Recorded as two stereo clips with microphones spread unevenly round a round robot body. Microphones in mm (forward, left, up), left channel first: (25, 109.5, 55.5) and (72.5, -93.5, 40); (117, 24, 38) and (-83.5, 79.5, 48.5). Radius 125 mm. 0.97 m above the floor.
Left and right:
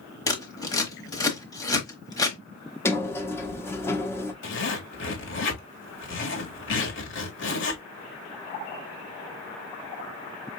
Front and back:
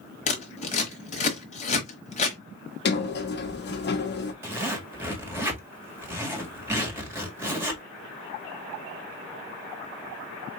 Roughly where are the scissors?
Ahead left.